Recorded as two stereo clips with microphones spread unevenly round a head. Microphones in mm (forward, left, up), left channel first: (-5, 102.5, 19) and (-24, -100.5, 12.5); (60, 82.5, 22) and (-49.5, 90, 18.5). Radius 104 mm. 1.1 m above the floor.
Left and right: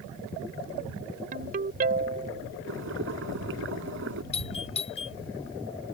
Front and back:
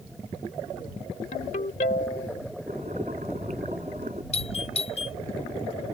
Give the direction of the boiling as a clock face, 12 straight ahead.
4 o'clock.